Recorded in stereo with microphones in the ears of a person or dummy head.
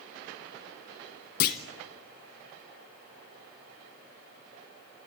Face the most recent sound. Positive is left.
turn(degrees=50)  # may be behind; listen again after turning